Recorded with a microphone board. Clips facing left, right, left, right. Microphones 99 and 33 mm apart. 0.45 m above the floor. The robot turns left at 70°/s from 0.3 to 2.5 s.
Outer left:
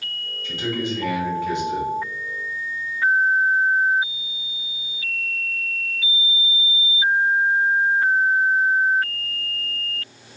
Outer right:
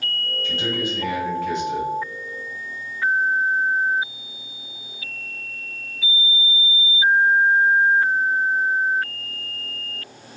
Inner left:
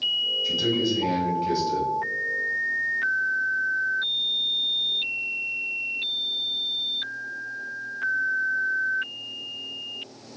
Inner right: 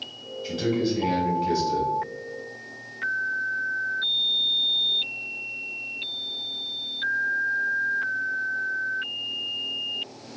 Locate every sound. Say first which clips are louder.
0.4 s a man speaking: outer left 1 dB, inner left 2 dB; 135° right, 2 m; by 1.9 s 125° left, 2 m